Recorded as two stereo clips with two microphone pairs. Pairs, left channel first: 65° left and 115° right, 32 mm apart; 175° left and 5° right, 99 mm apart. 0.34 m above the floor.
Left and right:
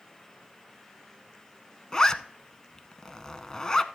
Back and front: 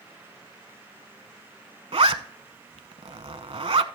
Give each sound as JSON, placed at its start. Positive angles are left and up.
{"t": 1.9, "sound": "a zipper", "azimuth_deg": -5, "distance_m": 0.6}